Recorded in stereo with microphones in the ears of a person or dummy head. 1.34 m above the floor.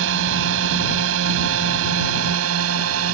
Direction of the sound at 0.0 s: 70° right (ahead or behind).